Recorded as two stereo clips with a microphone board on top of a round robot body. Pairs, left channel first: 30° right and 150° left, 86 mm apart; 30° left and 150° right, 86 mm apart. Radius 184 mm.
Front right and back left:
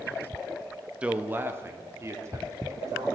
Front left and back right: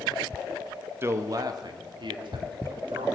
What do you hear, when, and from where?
1.0 s a man speaking: 150° right, 1.2 m; by 3.1 s 160° right, 3 m